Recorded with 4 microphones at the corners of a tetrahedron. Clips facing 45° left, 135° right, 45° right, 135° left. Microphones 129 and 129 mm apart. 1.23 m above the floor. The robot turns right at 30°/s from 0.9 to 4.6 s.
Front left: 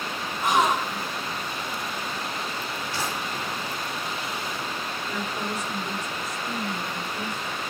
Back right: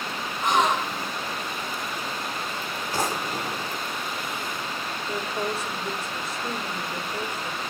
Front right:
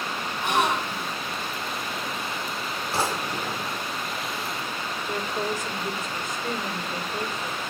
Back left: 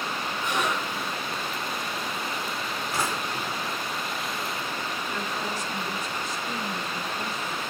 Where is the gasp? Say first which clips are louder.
Even, front right 5 dB; 40° right, 7.5 m; by 1.1 s 35° right, 7.5 m.